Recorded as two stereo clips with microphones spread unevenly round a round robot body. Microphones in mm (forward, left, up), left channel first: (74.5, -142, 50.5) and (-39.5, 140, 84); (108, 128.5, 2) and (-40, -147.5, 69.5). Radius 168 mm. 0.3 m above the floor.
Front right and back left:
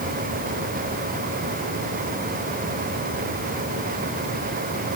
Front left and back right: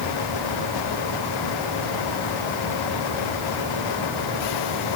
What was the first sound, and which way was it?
Only background noise.